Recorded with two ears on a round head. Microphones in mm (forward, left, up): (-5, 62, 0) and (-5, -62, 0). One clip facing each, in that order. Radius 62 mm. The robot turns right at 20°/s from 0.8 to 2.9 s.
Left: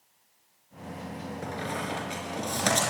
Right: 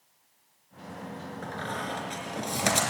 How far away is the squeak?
About 4 m.